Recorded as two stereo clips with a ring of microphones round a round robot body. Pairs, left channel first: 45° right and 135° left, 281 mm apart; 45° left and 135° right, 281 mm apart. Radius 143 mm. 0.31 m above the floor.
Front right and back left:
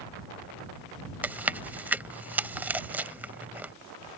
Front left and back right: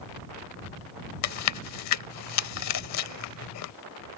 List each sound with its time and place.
1.2 s chewing: 50° left